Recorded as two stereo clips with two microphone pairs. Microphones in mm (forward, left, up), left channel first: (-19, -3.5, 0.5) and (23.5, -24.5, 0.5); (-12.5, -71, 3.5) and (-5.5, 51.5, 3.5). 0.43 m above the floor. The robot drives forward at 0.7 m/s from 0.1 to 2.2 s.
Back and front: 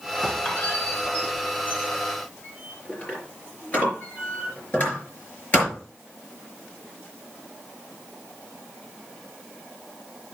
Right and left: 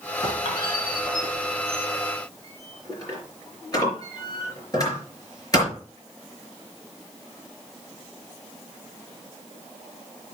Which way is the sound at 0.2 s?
140° right.